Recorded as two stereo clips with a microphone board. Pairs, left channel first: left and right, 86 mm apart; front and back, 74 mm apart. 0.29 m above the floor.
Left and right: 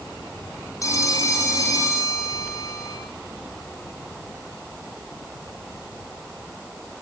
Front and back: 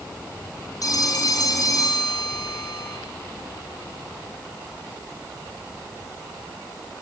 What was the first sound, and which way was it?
A phone ringing, 40° left.